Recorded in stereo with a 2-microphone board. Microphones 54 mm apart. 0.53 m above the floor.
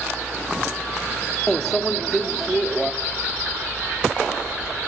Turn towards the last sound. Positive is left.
turn(degrees=5)  # may be behind; listen again after turning